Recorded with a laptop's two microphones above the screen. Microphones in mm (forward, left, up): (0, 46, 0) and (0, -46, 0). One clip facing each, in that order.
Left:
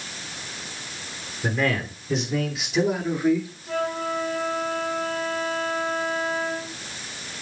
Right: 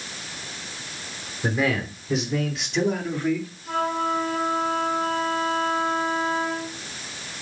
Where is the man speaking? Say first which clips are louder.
Right 1 dB; 10° right (ahead or behind), 3 m; by 3.5 s 20° left (ahead or behind), 2.0 m.